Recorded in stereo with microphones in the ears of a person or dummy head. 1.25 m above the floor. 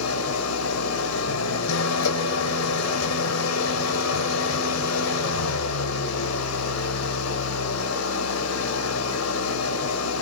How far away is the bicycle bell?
I don't hear a bicycle bell.